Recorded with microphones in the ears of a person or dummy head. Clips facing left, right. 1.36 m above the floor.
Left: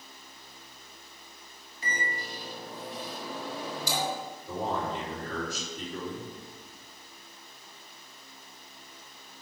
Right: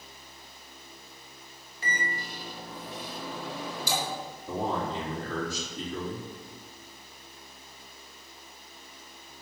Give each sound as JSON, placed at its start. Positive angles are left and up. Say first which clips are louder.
{"t": 1.8, "sound": "a microwave", "louder": "right 1 dB", "side_deg": -55, "distance_m": 4.0}
{"t": 4.5, "sound": "a man speaking", "louder": "right 1 dB", "side_deg": -70, "distance_m": 3.5}